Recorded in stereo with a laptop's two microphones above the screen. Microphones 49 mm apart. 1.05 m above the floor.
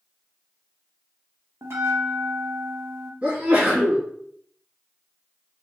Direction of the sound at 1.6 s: 65° right (ahead or behind).